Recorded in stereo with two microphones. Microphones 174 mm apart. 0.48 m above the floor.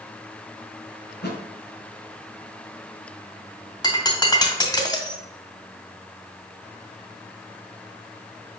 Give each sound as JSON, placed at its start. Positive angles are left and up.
{"t": 1.1, "sound": "a thud", "side_deg": 80, "distance_m": 3.0}
{"t": 3.8, "sound": "breaking glass", "side_deg": 25, "distance_m": 2.0}